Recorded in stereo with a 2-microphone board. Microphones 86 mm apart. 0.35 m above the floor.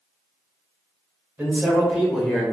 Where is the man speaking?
20° right (ahead or behind), 1.1 m; by 2.5 s 15° left (ahead or behind), 0.9 m.